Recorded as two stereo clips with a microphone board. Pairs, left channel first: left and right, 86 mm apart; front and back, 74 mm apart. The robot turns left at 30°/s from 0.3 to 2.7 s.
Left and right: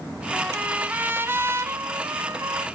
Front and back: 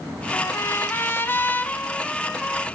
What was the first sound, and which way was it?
A trumpet, 15° right.